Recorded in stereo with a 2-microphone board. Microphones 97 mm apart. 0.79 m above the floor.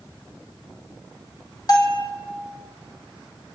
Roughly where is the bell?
Left.